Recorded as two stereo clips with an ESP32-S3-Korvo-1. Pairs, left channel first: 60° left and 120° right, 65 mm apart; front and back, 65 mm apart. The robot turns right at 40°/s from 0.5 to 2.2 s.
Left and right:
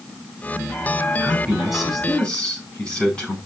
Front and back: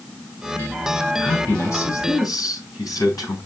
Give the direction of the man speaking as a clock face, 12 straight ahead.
2 o'clock.